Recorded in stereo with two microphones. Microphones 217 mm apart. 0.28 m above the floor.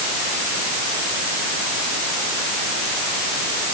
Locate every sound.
Only background noise.